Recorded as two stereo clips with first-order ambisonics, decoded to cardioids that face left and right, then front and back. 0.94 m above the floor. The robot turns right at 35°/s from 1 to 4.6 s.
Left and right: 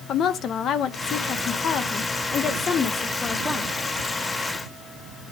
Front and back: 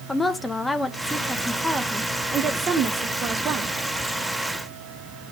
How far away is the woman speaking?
About 0.8 m.